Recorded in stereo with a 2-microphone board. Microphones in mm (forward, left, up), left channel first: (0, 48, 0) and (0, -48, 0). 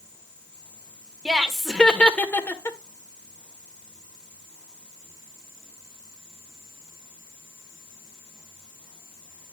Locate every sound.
1.2 s laughter: 5° right (ahead or behind), 1.3 m; by 2.8 s 30° left (ahead or behind), 1.4 m